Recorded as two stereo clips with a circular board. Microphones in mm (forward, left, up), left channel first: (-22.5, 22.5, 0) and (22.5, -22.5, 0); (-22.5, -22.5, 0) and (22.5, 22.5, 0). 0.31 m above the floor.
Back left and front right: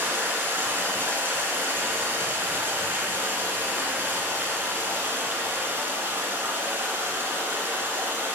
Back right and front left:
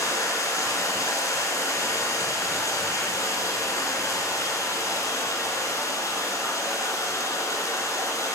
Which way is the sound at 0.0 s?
105° right.